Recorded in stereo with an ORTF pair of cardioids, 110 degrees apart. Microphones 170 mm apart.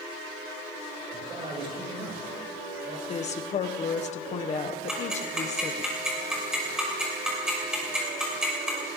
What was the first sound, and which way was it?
A man speaking, 35° right.